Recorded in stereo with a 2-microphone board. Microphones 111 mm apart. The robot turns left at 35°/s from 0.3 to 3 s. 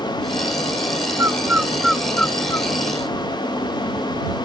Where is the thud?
I don't hear a thud.